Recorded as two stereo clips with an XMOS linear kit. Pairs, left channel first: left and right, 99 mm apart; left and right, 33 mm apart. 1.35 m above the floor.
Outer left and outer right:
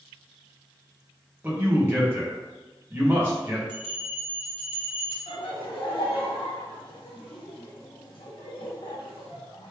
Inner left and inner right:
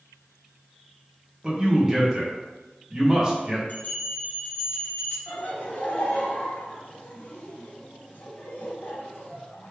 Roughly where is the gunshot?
I don't hear a gunshot.